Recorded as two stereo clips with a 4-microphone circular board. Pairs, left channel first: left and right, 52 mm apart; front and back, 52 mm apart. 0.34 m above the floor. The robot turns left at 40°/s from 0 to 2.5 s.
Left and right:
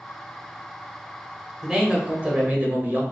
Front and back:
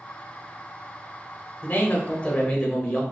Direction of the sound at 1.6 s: 20° right.